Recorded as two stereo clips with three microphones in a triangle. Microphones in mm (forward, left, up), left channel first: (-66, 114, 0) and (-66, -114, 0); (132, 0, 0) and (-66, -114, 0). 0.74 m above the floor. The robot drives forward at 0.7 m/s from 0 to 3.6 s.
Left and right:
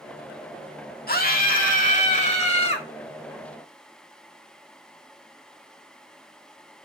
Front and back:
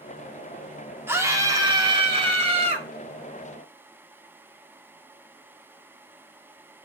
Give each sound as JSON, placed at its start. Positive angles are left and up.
{"t": 1.1, "sound": "a scream", "azimuth_deg": 130, "distance_m": 1.9}